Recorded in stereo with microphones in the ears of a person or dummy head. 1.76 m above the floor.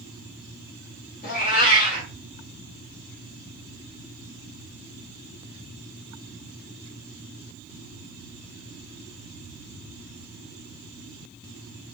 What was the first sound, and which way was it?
A cat meowing, 50° left (ahead or behind).